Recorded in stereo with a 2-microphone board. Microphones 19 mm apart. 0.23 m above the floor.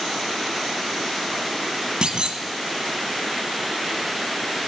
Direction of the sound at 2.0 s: 55° right (ahead or behind).